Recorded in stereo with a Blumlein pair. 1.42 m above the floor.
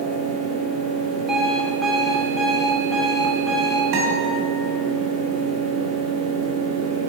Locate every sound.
0.0 s a fan: 35° right, 1.8 m
1.3 s an alarm clock: 5° right, 1.7 m
3.9 s a guitar: 30° right, 2.5 m